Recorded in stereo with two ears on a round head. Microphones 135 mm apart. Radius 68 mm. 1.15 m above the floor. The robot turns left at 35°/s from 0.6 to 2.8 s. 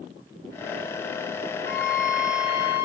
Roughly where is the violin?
Left.